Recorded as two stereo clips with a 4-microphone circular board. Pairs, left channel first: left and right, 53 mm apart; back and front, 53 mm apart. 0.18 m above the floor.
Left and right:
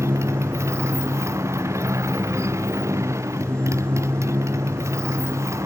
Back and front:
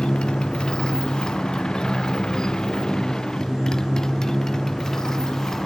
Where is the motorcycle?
105° right; by 5.7 s 100° right.